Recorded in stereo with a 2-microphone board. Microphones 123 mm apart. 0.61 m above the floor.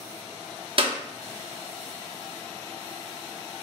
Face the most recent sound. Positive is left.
turn(degrees=-45)  # may be behind; listen again after turning